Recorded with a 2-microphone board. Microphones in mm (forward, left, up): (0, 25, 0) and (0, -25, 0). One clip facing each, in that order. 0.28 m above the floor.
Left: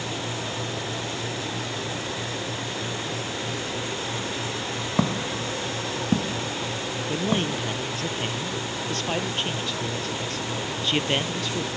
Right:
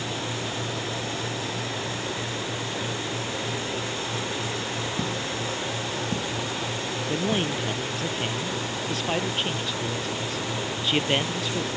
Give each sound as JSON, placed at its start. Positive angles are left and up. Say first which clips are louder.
{"t": 5.0, "sound": "footsteps", "louder": "left 3 dB", "side_deg": 80}
{"t": 7.1, "sound": "a man speaking", "louder": "left 1 dB", "side_deg": -5}